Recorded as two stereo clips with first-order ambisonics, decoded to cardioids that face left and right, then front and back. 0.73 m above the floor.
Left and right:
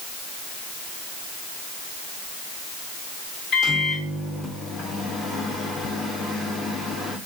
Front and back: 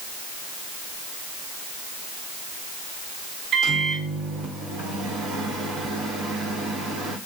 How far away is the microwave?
About 1.2 m.